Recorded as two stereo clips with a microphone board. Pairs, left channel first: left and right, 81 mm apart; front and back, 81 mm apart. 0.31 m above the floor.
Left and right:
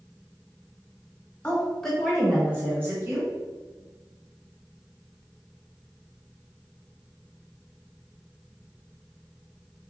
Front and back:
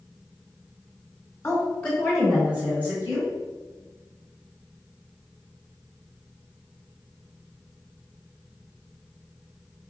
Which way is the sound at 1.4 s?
30° left.